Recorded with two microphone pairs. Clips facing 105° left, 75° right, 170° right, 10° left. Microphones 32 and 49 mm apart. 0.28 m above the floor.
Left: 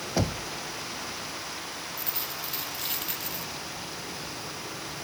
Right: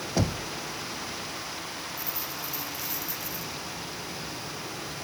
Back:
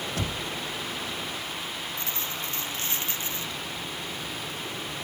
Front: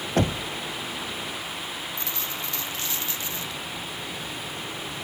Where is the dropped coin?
135° left.